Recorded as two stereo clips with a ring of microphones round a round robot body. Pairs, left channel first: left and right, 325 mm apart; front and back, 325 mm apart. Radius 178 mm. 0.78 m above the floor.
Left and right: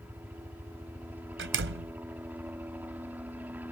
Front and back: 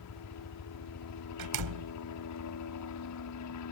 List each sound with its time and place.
0.0 s a helicopter: 5° right
1.4 s a door slam: 145° right